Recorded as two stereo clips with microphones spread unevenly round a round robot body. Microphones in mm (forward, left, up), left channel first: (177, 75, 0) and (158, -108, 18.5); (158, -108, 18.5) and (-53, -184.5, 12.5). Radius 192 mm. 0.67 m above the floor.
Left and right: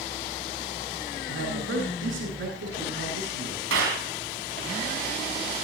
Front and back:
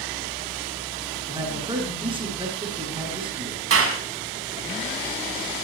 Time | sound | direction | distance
1.3 | a man speaking | 95° right | 8.5 m
3.7 | a clap | 145° right | 5.5 m